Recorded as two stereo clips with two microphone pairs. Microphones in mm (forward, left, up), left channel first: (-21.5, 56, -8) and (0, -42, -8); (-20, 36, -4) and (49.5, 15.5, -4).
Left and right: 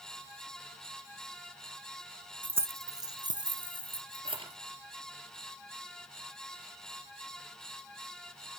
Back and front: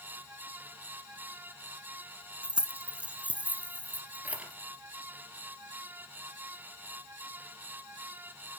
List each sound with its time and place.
2.4 s keys jangling: 55° right, 1.1 m; by 4.6 s 85° right, 2.5 m